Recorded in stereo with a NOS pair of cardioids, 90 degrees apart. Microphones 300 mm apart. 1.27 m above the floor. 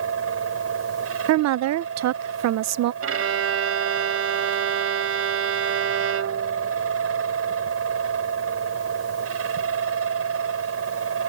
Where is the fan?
50° right.